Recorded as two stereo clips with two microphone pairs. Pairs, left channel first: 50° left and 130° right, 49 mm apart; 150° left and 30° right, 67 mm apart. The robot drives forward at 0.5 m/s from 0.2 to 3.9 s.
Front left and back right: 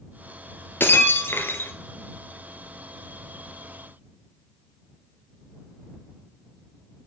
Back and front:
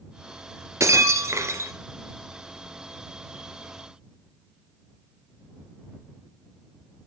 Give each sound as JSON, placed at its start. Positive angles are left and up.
{"t": 0.8, "sound": "breaking glass", "azimuth_deg": 10, "distance_m": 2.5}